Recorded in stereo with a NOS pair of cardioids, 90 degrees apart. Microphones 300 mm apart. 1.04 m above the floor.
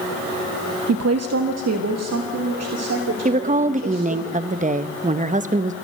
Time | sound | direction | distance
0.9 | a woman speaking | 60° right | 0.9 m
3.2 | a woman speaking | 25° right | 1.1 m